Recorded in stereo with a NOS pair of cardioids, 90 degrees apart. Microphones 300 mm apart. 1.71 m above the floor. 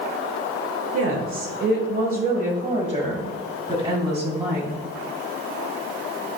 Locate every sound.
0.9 s a woman speaking: 50° right, 1.2 m; by 4.8 s 10° right, 3 m